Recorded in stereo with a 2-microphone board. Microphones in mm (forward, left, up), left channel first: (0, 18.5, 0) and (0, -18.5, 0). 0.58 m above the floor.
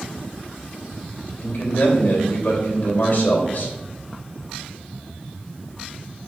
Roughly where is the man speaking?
Left.